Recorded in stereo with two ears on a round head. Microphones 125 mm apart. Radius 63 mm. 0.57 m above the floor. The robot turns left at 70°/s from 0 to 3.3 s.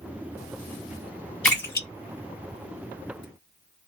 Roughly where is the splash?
Centre.